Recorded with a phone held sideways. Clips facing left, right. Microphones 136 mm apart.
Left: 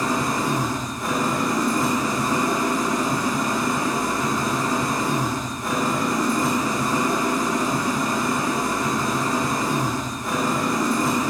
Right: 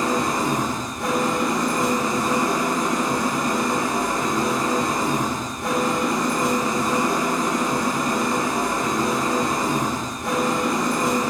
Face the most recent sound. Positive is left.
turn(degrees=-65)  # may be behind; listen again after turning